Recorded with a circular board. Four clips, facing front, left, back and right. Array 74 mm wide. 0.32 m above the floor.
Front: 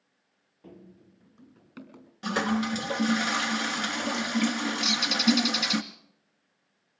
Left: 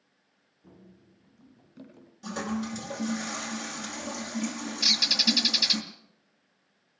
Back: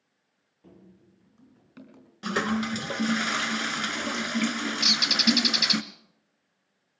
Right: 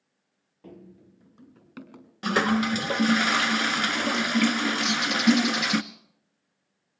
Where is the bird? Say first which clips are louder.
Right 8 dB, front 1 dB; 155° left, 2.5 m.